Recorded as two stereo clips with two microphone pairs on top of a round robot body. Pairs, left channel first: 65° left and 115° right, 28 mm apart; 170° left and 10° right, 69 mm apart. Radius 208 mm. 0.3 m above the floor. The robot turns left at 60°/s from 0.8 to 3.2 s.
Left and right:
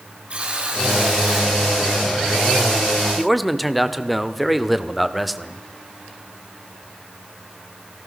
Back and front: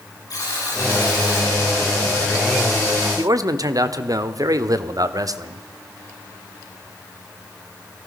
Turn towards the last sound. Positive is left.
turn(degrees=-25)